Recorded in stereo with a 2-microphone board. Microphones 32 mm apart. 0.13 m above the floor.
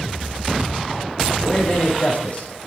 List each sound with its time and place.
1.4 s a man speaking: 40° left (ahead or behind), 7.5 m